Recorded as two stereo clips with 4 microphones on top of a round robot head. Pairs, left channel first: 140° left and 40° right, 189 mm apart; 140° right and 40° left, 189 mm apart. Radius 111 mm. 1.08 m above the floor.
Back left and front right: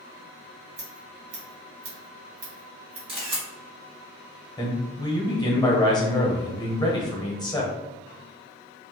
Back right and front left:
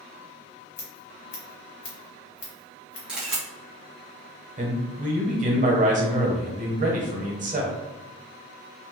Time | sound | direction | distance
0.8 | scissors | 95° right | 1.2 m
3.1 | a camera shutter | 45° right | 0.7 m
4.6 | a man speaking | 75° left | 1.0 m